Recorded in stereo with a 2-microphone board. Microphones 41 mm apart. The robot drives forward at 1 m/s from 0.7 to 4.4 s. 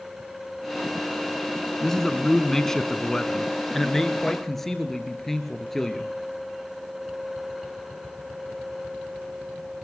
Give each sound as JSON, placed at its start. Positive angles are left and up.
{"t": 1.8, "sound": "a man speaking", "side_deg": 10, "distance_m": 1.4}